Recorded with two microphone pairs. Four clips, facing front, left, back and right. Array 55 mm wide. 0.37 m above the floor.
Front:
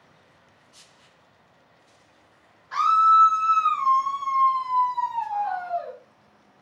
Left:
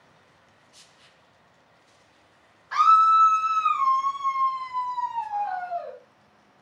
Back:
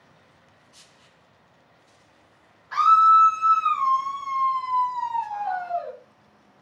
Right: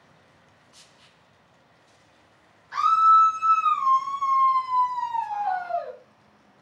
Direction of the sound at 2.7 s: 95° left.